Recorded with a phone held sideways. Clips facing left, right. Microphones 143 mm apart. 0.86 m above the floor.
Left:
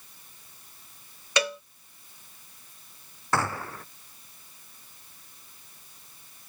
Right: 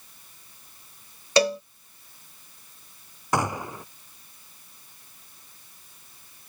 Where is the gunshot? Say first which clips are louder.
Right 2 dB; 15° right (ahead or behind).